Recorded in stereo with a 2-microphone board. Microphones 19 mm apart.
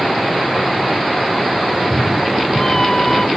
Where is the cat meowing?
25° left (ahead or behind); by 3.3 s 20° left (ahead or behind).